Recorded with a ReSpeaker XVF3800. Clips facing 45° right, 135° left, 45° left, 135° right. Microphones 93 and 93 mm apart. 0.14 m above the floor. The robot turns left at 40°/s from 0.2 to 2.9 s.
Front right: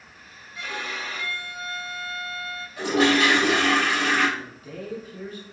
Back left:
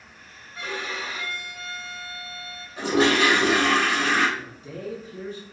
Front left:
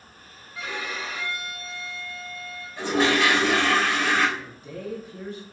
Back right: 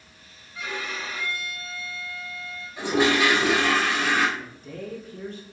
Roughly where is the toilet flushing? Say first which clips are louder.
Even, even; behind.